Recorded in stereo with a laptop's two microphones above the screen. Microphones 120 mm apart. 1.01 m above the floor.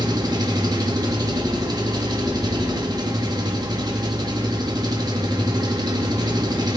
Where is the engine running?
35° right (ahead or behind), 1.1 m.